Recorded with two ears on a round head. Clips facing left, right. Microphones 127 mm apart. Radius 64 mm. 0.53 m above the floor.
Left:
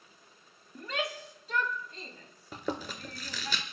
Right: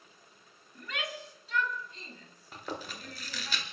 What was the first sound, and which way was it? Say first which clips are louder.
A shout: left 4 dB; 25° left (ahead or behind).